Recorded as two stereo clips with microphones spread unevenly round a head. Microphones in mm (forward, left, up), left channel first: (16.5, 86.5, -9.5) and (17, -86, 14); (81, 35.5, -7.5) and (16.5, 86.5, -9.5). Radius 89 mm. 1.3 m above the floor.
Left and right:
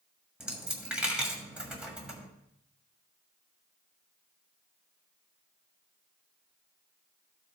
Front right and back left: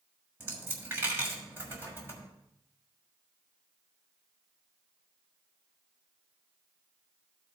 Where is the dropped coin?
160° right, 1.4 m.